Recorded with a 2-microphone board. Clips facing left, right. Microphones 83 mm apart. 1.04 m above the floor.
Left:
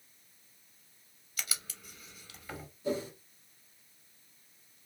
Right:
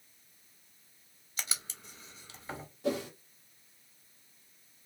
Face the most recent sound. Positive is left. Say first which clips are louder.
# right 1 dB
turn(degrees=-85)